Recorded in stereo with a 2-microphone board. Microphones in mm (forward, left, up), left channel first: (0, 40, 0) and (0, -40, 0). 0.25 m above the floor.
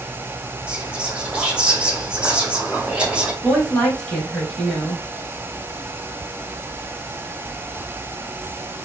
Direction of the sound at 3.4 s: 10° left (ahead or behind).